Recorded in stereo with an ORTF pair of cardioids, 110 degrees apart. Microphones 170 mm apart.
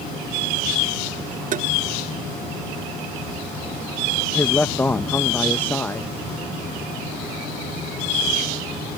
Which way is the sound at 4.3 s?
10° left.